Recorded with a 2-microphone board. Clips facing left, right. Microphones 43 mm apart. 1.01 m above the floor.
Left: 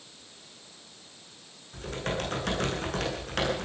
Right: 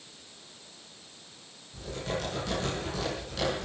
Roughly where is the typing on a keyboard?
Left.